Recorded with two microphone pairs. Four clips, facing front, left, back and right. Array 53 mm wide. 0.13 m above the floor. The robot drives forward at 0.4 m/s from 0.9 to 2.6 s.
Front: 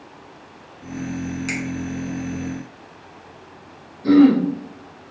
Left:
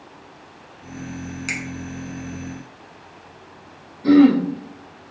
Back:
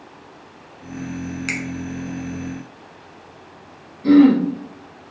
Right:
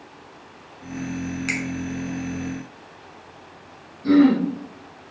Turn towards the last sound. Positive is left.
turn(degrees=140)